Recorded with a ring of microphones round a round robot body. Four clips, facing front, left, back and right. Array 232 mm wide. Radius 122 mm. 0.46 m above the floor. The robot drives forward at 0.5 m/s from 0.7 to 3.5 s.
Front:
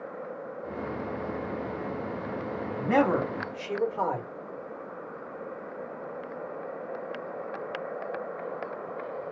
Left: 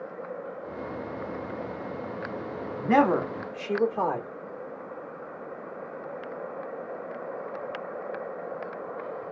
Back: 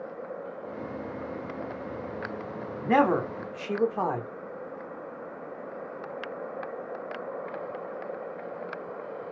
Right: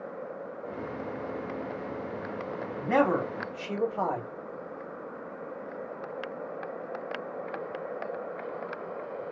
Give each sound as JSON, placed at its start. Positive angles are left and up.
{"t": 2.8, "sound": "a man speaking", "azimuth_deg": 135, "distance_m": 1.4}